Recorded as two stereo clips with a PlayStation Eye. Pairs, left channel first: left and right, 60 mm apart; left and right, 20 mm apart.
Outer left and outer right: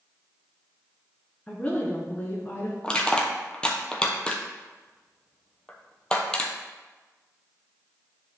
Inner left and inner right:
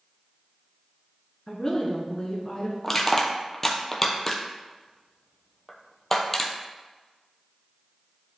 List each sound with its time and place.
1.5 s a woman speaking: 15° left (ahead or behind), 1.3 m; by 2.7 s 40° left (ahead or behind), 1.3 m
2.8 s crushing: 15° left (ahead or behind), 1.1 m